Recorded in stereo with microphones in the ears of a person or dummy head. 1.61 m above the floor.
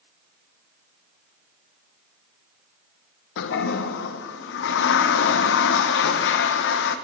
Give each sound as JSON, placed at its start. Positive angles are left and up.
{"t": 3.4, "sound": "a toilet flushing", "side_deg": 65, "distance_m": 1.0}